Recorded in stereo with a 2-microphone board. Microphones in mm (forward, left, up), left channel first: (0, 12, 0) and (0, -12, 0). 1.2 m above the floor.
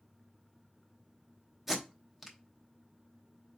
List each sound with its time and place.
1.7 s tape being pulled: 15° right (ahead or behind), 0.8 m